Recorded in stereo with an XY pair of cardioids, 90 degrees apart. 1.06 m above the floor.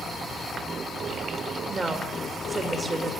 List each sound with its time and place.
1.7 s a woman speaking: 30° right, 4.5 m